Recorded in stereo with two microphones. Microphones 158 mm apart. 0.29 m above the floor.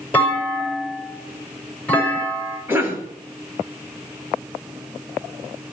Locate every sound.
0.1 s a clunk: 10° left (ahead or behind), 6 m
2.7 s a cough: 15° right (ahead or behind), 3.5 m